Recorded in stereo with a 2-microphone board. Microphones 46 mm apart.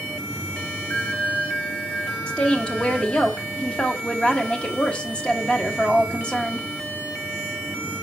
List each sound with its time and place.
0.9 s a bell: 60° left (ahead or behind), 1.8 m
2.3 s a woman speaking: 25° left (ahead or behind), 1.1 m